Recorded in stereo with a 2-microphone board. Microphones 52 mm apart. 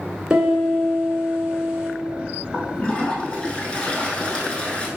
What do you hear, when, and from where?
0.3 s a piano: 10° right (ahead or behind), 1.8 m
2.5 s a toilet flushing: 20° left (ahead or behind), 0.8 m